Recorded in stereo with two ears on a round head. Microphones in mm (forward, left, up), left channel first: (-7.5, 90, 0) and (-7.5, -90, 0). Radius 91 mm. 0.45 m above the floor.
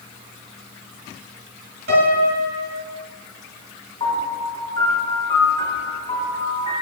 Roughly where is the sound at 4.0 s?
Left.